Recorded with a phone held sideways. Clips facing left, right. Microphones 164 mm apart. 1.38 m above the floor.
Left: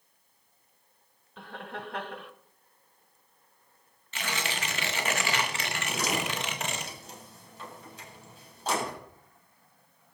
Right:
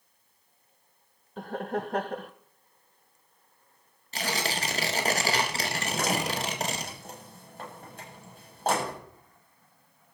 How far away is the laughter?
About 0.7 m.